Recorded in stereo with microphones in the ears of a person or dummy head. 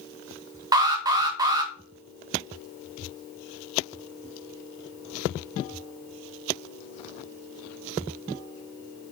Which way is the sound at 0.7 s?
20° right (ahead or behind).